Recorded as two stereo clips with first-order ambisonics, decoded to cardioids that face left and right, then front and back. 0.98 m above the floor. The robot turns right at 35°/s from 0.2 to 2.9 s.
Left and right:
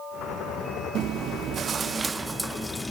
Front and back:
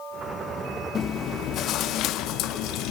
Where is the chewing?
55° right; by 2.9 s 10° left.